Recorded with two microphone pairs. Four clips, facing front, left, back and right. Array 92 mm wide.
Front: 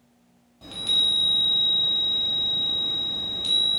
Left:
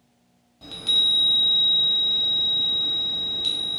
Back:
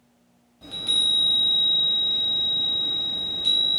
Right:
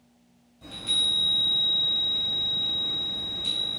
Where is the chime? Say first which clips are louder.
Left 3 dB, even; 45° left, 1.3 m.